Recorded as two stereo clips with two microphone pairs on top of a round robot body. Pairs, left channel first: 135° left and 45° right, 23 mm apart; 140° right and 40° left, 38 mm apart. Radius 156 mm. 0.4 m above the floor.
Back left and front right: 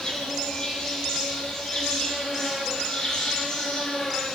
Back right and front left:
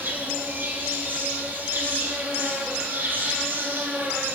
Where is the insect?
80° left, 8.5 m.